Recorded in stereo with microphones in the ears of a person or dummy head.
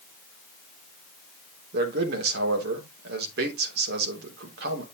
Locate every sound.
1.7 s a man speaking: 70° right (ahead or behind), 3 m